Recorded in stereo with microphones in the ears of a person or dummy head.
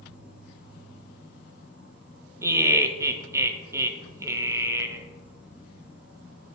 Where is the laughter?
20° right (ahead or behind), 1.3 m.